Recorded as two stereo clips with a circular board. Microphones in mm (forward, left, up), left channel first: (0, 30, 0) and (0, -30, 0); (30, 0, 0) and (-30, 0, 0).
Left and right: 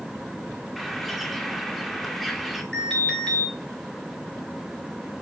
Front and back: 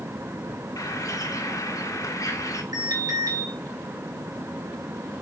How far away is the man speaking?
No man speaking in this recording.